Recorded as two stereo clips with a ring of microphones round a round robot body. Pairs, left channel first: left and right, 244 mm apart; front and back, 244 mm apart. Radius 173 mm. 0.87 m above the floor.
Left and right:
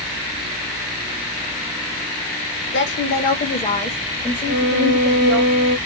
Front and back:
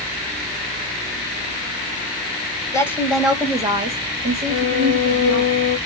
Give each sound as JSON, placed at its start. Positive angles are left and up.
{"t": 2.7, "sound": "a woman speaking", "azimuth_deg": 75, "distance_m": 1.0}
{"t": 4.5, "sound": "a violin", "azimuth_deg": -125, "distance_m": 1.8}